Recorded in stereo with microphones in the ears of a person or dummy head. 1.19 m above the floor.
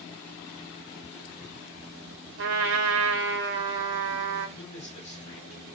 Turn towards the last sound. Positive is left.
turn(degrees=35)  # may be behind; listen again after turning